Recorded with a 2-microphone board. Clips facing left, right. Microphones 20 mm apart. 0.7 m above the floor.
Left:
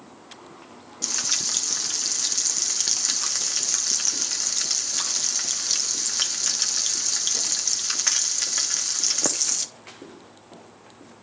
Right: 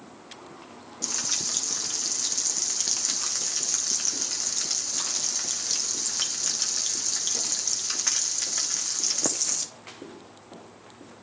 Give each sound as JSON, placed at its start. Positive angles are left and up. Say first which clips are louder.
{"t": 1.0, "sound": "frying", "louder": "left 3 dB", "side_deg": 25, "distance_m": 1.0}